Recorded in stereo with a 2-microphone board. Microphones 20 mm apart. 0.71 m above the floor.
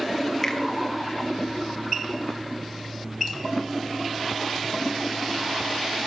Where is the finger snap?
20° left (ahead or behind), 2.5 m.